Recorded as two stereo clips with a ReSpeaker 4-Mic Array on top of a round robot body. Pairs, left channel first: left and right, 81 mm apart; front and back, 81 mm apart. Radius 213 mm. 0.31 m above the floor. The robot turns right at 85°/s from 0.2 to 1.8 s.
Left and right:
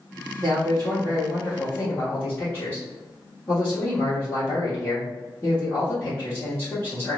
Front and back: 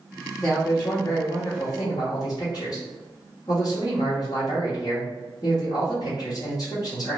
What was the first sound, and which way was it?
A man speaking, 100° right.